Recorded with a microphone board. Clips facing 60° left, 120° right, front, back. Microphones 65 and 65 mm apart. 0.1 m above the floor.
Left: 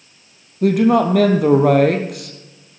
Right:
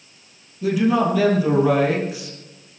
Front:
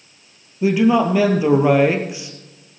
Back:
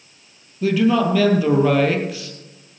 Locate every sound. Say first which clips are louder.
0.6 s a man speaking: left 5 dB, front 2 dB; 70° left, 2.5 m